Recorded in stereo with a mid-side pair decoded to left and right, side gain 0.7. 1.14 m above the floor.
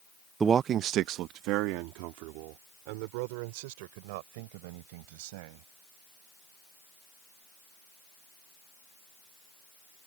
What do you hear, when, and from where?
0.4 s a man speaking: 25° right; by 5.7 s 80° right